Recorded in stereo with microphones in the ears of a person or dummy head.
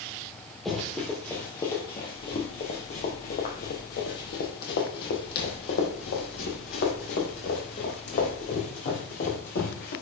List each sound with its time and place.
0.7 s running footsteps: centre (ahead or behind), 1.7 m; by 9.9 s 65° left (ahead or behind), 4 m